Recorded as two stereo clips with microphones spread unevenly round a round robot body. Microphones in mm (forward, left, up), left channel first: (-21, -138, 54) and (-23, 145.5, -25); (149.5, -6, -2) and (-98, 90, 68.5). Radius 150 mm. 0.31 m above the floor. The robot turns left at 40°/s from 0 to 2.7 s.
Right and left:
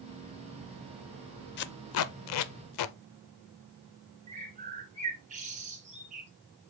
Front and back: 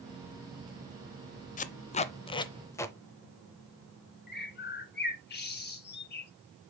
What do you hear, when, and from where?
1.6 s tape being pulled: 30° right, 0.5 m; by 3.0 s 80° right, 0.5 m
4.3 s a bird: 30° left, 1.5 m